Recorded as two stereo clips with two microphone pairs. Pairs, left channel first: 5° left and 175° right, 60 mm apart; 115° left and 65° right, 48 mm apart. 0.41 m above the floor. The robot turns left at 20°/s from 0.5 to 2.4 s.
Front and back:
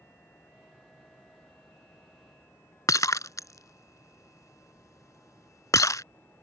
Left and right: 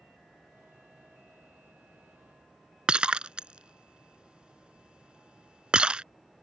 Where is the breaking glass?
Straight ahead.